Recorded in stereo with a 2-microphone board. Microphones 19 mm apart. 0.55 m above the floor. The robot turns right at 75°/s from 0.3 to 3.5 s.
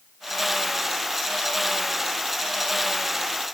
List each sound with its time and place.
Only background noise.